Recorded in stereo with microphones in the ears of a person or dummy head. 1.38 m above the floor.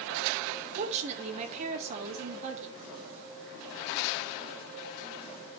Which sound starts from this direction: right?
A woman speaking, at 0.8 s.